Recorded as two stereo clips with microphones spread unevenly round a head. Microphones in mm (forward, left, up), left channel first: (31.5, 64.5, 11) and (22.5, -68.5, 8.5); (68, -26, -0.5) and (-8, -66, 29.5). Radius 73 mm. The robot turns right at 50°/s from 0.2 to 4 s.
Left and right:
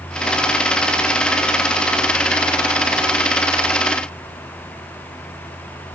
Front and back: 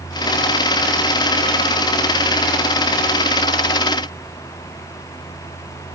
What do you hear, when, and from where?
Only background noise.